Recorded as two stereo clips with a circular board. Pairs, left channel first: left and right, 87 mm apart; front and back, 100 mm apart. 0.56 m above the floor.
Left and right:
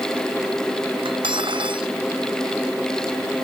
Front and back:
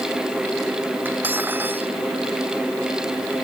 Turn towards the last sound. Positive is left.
turn(degrees=-110)